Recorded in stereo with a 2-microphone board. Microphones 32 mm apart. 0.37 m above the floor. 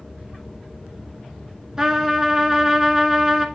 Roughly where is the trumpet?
Right.